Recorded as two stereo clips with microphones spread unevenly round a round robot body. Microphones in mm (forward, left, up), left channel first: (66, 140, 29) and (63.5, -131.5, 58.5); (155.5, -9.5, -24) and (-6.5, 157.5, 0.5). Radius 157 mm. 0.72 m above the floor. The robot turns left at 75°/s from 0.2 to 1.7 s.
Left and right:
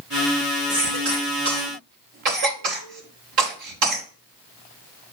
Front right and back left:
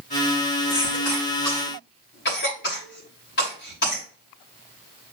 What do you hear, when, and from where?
0.7 s a cough: 25° right, 4.5 m; by 4.1 s 100° right, 4.5 m